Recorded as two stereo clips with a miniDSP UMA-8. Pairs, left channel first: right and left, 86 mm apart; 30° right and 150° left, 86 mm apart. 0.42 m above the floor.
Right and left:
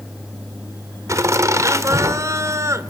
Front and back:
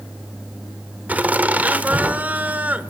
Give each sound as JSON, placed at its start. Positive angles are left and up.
{"t": 1.1, "sound": "laughter", "azimuth_deg": 90, "distance_m": 1.6}